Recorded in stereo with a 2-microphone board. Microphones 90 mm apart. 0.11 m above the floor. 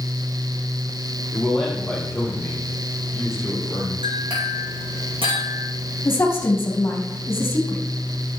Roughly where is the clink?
Right.